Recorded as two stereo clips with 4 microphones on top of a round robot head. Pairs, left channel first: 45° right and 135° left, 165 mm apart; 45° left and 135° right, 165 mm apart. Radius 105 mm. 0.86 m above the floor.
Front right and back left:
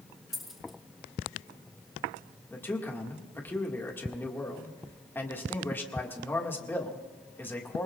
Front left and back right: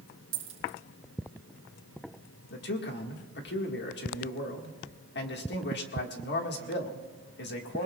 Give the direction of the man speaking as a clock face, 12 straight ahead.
11 o'clock.